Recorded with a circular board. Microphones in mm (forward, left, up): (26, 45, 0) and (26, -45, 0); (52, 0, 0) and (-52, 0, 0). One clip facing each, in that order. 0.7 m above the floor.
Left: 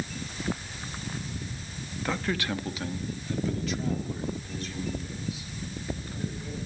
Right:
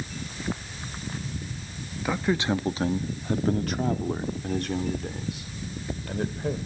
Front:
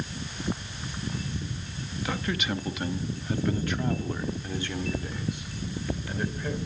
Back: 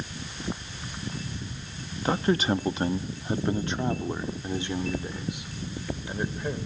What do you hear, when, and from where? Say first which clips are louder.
2.0 s a man speaking: right 5 dB, back 7 dB; 165° right, 0.7 m; by 6.6 s 105° right, 2.5 m